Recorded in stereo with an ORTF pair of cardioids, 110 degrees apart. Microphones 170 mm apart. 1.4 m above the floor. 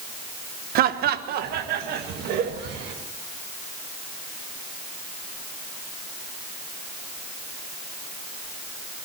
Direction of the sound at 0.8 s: 65° right.